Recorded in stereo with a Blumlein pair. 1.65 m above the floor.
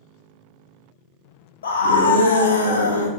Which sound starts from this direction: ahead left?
A scream, at 1.6 s.